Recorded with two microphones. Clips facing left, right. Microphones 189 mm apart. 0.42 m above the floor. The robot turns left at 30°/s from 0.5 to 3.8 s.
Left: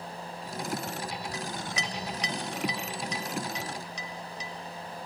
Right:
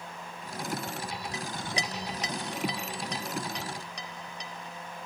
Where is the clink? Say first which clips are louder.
Even; 25° right (ahead or behind), 1.1 m; by 4.5 s 70° right (ahead or behind), 1.1 m.